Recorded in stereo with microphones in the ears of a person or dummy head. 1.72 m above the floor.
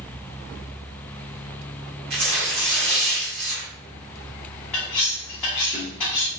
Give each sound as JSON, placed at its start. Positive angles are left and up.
{"t": 2.1, "sound": "tearing paper", "side_deg": -55, "distance_m": 1.4}
{"t": 4.7, "sound": "cutlery clinking", "side_deg": 10, "distance_m": 1.0}